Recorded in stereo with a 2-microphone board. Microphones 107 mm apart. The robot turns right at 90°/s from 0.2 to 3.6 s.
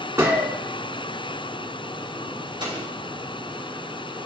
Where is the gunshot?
25° right, 1.4 m; by 0.6 s 10° left, 1.4 m.